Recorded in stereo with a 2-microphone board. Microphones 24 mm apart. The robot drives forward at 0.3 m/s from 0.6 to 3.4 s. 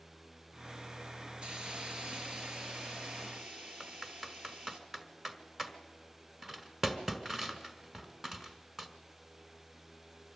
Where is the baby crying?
No baby crying in this recording.